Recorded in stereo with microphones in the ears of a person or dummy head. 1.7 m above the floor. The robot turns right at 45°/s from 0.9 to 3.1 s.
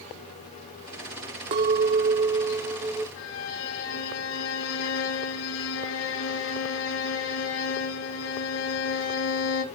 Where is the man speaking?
No man speaking in this recording.